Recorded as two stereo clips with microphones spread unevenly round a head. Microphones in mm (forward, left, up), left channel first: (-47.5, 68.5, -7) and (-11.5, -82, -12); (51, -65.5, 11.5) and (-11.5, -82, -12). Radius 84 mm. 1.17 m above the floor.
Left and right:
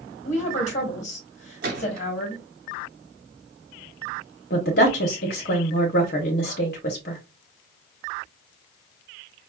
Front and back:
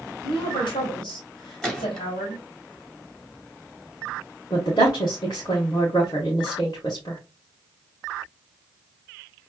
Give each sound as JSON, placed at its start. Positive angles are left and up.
{"t": 0.2, "sound": "a woman speaking", "azimuth_deg": 60, "distance_m": 1.0}
{"t": 1.6, "sound": "a gunshot", "azimuth_deg": -60, "distance_m": 2.0}
{"t": 4.5, "sound": "a woman speaking", "azimuth_deg": 75, "distance_m": 0.8}